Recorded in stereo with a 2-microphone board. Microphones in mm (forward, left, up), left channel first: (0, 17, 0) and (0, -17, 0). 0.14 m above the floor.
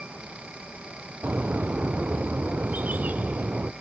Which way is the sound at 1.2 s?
65° right (ahead or behind).